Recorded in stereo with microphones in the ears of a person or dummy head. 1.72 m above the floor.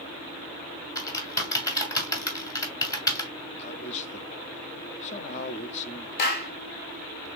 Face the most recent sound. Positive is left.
turn(degrees=55)  # may be behind; listen again after turning